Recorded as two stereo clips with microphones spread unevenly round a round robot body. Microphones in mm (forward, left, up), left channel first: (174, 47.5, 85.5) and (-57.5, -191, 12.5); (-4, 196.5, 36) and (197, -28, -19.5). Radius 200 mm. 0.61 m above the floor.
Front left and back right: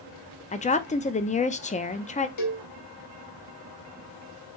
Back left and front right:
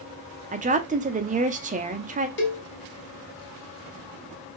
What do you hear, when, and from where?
0.5 s a woman speaking: 30° right, 0.7 m
2.4 s a cowbell: 80° left, 1.3 m